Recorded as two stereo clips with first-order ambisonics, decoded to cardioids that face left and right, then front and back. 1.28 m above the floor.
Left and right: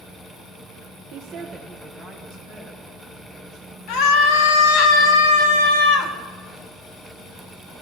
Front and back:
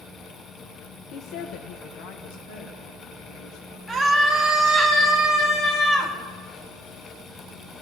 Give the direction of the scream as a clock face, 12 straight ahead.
9 o'clock.